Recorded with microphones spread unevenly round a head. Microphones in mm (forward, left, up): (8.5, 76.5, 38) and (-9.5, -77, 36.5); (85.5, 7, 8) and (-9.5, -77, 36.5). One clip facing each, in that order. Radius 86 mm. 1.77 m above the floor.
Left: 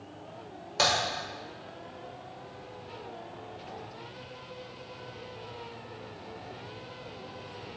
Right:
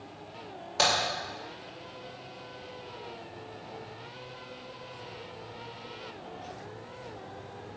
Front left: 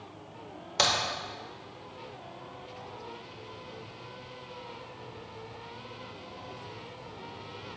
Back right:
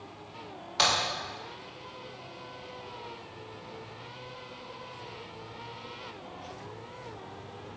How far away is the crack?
About 2.5 m.